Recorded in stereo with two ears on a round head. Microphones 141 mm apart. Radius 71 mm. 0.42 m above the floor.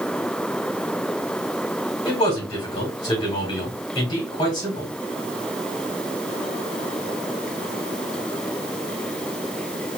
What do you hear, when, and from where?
2.0 s a man speaking: 25° left (ahead or behind), 3 m